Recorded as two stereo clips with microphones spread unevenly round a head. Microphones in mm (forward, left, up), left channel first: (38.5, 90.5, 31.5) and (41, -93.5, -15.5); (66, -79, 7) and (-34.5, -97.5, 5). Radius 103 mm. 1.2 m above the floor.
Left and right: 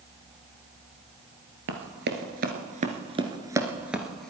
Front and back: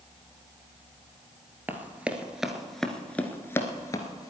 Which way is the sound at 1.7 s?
105° right.